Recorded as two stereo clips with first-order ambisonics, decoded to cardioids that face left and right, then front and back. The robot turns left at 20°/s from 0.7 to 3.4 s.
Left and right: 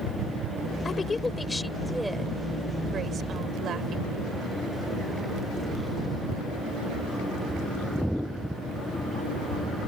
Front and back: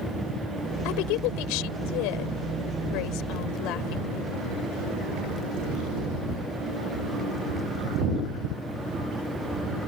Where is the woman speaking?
20° left; by 4.3 s 30° right.